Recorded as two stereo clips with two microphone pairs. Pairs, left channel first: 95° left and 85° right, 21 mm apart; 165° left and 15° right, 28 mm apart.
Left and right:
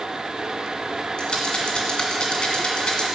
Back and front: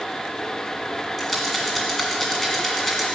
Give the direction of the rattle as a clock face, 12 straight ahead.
9 o'clock.